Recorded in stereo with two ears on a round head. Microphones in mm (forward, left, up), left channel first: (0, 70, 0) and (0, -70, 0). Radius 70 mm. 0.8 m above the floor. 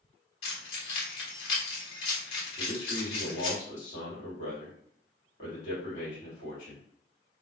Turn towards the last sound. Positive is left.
turn(degrees=55)  # may be behind; listen again after turning